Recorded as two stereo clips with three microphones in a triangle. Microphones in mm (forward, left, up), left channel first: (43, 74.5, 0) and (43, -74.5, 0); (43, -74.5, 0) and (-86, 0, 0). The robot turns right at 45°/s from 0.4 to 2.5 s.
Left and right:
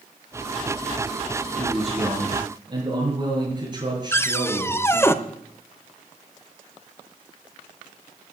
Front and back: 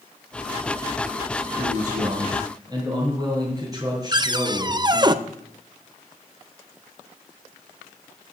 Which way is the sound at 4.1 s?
145° left.